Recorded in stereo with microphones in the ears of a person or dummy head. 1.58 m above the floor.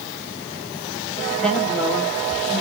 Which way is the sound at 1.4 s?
5° left (ahead or behind).